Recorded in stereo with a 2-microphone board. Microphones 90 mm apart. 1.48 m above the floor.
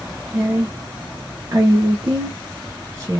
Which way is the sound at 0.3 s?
35° right (ahead or behind).